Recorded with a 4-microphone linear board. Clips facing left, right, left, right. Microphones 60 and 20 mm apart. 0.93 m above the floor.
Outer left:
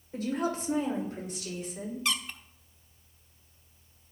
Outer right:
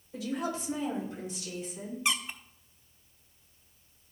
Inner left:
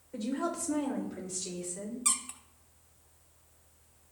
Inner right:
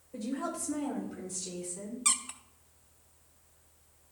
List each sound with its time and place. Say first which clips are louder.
0.1 s a woman speaking: outer left 3 dB, inner left 2 dB; 40° left (ahead or behind), 4 m; by 1.9 s 60° left (ahead or behind), 5 m
2.0 s a squeak: outer right 2 dB, inner right 3 dB; 20° right (ahead or behind), 0.6 m